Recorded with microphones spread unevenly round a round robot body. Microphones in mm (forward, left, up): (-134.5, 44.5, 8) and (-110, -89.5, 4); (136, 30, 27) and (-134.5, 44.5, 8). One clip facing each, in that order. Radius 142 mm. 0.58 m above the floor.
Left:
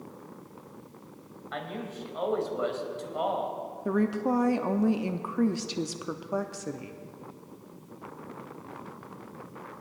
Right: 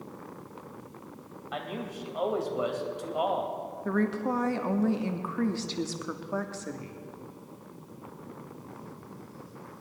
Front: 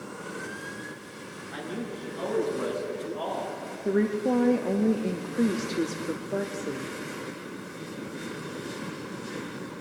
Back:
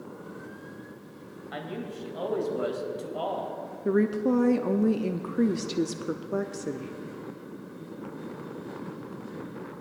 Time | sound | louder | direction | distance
1.5 | a man speaking | even, front 2 dB | 155° right | 3 m
3.9 | a woman speaking | left 2 dB, back 1 dB | 155° left | 0.6 m